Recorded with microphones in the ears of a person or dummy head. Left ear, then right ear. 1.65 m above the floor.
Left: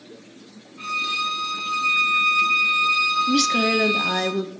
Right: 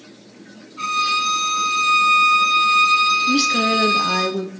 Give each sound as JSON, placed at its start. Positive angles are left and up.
{"t": 0.8, "sound": "a violin", "side_deg": -85, "distance_m": 3.5}
{"t": 3.3, "sound": "a woman speaking", "side_deg": 10, "distance_m": 0.8}